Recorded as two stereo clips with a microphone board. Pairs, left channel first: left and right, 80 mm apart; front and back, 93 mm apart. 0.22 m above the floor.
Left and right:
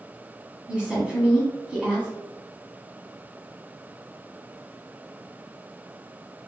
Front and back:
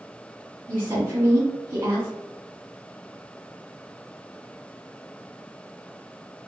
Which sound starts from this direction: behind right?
A woman speaking, at 0.7 s.